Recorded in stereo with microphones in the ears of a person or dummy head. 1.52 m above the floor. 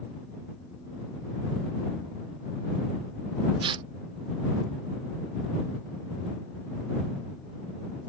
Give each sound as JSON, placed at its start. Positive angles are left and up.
{"t": 3.6, "sound": "tearing paper", "side_deg": -30}